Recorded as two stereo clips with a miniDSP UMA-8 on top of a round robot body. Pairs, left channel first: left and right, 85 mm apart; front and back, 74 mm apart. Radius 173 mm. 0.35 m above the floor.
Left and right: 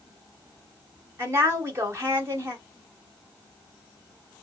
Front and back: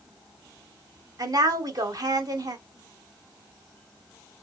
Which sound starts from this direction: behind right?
A woman speaking, at 1.2 s.